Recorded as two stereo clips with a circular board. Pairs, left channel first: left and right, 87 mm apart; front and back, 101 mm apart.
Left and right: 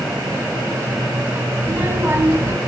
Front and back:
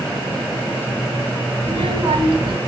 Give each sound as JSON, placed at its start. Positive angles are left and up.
{"t": 1.6, "sound": "a child speaking", "azimuth_deg": -155, "distance_m": 3.0}